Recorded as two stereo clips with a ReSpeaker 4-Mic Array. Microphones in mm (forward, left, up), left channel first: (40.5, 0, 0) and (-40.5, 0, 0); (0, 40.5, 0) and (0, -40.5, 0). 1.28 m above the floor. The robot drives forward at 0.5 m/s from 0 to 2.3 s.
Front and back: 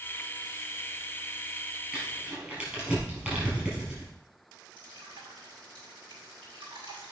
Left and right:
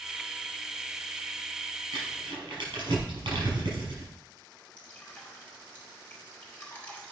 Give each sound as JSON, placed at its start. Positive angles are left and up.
{"t": 1.9, "sound": "crumpling", "azimuth_deg": -105, "distance_m": 5.0}
{"t": 4.8, "sound": "dripping", "azimuth_deg": 160, "distance_m": 4.0}